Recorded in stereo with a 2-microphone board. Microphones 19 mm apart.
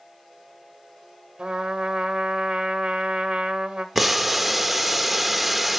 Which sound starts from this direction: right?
A trumpet, at 1.4 s.